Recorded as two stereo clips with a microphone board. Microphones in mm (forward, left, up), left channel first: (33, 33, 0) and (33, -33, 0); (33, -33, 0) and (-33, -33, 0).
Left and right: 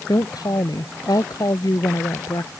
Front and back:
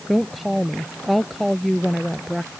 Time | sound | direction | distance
0.1 | a woman speaking | 90° left | ?